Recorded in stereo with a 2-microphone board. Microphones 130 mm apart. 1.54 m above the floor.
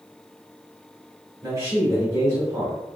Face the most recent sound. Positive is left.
turn(degrees=-25)  # may be behind; listen again after turning